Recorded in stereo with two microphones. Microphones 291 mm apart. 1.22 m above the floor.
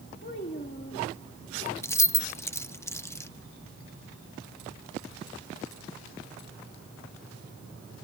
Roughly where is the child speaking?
Left.